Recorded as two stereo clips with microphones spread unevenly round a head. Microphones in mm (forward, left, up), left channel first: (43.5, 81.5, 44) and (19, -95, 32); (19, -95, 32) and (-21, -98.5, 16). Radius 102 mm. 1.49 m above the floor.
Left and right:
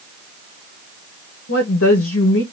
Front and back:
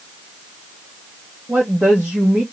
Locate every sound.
1.5 s a woman speaking: 100° left, 1.1 m